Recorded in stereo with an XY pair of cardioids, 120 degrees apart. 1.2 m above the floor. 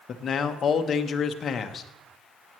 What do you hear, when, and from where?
0.1 s a man speaking: 45° left, 1.0 m